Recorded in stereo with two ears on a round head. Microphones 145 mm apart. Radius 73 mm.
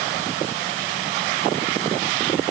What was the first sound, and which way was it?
Only background noise.